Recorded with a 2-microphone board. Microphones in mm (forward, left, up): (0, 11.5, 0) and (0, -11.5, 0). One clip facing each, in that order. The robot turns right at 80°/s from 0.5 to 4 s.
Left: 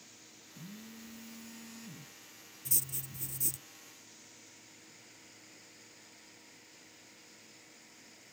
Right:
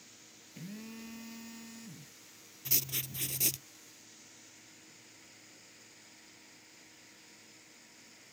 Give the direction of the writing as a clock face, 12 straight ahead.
5 o'clock.